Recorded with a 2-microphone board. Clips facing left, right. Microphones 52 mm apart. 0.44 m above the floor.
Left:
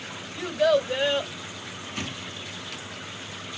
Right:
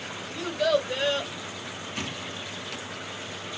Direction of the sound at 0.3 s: 15° left (ahead or behind).